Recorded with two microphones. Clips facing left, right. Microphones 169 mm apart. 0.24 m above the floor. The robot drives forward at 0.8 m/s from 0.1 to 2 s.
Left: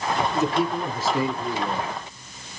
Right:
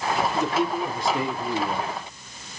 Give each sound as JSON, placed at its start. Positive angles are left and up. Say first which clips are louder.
{"t": 0.3, "sound": "a man speaking", "louder": "left 1 dB", "side_deg": 5, "distance_m": 1.1}